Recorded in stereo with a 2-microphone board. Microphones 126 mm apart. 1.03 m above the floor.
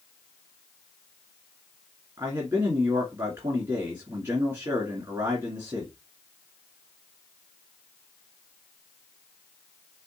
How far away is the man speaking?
About 2 m.